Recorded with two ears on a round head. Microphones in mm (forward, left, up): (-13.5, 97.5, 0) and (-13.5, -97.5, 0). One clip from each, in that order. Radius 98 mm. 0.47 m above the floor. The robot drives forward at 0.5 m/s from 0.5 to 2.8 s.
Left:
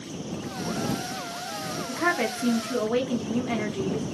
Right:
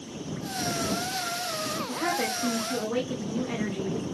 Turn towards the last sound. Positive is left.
turn(degrees=15)  # may be behind; listen again after turning